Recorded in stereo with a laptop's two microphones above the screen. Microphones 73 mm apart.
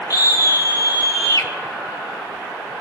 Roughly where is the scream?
Left.